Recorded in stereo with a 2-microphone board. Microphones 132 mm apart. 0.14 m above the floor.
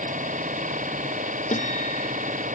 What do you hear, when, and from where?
0.0 s an engine running: 75° right (ahead or behind)
1.5 s a guitar: 65° left (ahead or behind)